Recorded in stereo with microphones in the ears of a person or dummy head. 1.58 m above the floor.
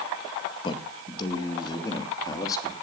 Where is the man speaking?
25° left (ahead or behind), 2.0 m; by 2.7 s 20° left (ahead or behind), 3 m.